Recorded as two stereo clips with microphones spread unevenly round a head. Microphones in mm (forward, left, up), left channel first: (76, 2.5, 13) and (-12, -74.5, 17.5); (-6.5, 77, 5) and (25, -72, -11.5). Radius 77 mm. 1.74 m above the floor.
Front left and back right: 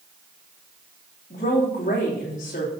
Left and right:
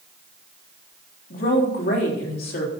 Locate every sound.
1.3 s a woman speaking: 75° left, 3.5 m